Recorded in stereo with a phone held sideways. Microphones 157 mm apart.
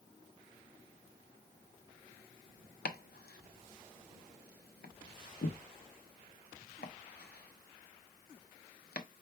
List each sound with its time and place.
2.9 s chopping: 85° left, 0.9 m